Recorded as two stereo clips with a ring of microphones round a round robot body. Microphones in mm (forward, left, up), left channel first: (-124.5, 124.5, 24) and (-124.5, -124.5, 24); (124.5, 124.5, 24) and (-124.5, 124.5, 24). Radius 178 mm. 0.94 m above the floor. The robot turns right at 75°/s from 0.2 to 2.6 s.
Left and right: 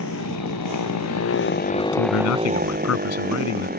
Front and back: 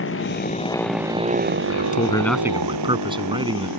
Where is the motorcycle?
35° left; by 3.8 s 145° right.